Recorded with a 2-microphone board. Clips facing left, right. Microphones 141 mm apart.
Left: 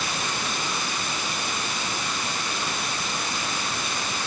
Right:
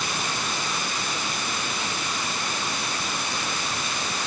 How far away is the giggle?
No giggle in this recording.